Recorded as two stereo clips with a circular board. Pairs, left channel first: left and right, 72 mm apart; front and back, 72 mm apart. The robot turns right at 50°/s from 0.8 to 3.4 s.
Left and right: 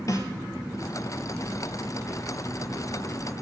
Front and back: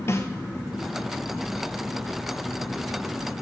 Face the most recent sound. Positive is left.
turn(degrees=180)